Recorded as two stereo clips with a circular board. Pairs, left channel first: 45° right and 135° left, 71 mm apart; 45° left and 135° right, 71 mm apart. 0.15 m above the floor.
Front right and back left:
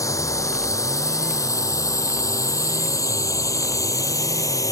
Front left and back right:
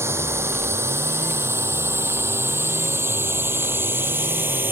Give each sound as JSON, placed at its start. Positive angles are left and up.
{"t": 0.0, "sound": "a drone", "azimuth_deg": -85}